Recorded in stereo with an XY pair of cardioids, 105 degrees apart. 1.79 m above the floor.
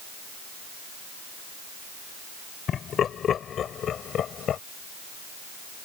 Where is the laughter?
55° left; by 4.6 s 60° left.